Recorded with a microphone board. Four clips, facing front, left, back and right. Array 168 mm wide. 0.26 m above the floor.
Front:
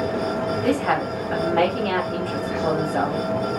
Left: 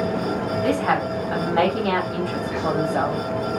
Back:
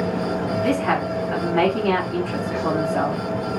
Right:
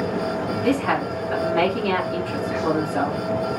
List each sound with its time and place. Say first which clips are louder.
0.6 s a woman speaking: even, even; 60° left, 1.2 m